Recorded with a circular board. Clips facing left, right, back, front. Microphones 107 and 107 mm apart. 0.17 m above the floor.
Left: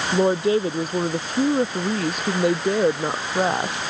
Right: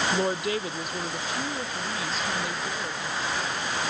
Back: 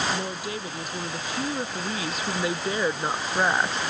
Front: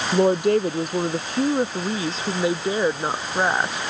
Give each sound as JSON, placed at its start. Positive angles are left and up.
{"t": 0.1, "sound": "a woman speaking", "azimuth_deg": 25}